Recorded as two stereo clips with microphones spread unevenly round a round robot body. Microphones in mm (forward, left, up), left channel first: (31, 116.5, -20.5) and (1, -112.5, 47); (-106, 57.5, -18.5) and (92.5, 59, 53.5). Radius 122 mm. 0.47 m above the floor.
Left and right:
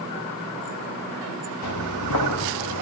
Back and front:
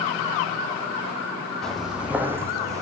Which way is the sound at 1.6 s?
85° left.